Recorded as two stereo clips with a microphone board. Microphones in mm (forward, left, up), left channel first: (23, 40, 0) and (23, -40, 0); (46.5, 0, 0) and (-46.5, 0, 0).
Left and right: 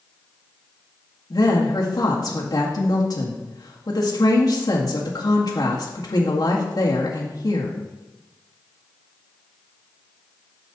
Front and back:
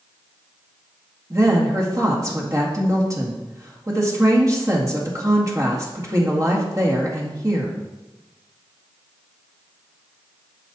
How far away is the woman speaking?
About 1.9 m.